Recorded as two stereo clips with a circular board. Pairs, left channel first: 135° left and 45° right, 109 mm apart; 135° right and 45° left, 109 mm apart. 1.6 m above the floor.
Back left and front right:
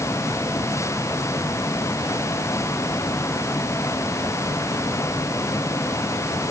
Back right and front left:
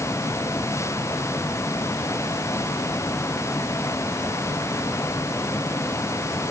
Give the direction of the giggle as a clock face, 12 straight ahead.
No giggle in this recording.